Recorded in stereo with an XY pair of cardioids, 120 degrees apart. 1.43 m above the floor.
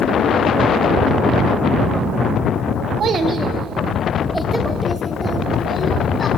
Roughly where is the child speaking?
Ahead right.